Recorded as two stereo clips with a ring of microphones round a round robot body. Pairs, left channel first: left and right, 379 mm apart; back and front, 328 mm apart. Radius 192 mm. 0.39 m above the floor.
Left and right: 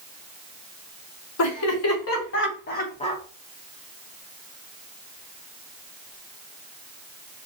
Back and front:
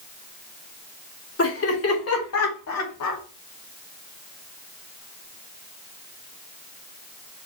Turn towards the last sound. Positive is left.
turn(degrees=170)